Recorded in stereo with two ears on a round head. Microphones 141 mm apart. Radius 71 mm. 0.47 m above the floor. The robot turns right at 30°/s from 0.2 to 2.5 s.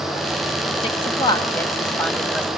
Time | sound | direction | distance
0.8 | a woman speaking | 40° left (ahead or behind) | 2 m